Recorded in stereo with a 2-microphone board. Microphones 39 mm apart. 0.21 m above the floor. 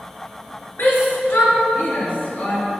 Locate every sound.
0.8 s a shout: 65° left (ahead or behind), 4 m; by 2.6 s 40° left (ahead or behind), 3 m